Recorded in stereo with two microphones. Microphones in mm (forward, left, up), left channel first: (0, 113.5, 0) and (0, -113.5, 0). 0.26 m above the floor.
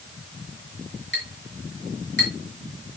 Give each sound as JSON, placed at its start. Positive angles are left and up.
{"t": 1.1, "sound": "a clink", "side_deg": 50, "distance_m": 3.0}